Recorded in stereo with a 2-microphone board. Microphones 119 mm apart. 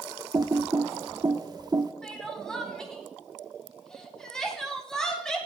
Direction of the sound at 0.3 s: 35° right (ahead or behind).